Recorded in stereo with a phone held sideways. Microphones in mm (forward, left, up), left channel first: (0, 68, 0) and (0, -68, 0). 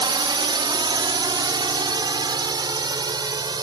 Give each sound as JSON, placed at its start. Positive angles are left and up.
{"t": 0.0, "sound": "a drone", "side_deg": -40}